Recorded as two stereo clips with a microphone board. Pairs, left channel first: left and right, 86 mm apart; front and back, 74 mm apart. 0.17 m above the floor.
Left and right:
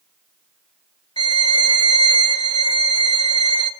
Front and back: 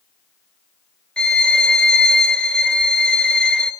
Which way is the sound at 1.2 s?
75° left.